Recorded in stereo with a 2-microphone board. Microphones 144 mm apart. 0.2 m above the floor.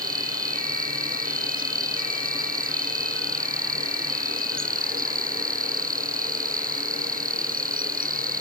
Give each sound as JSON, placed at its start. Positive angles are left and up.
{"t": 0.0, "sound": "an insect", "side_deg": -75}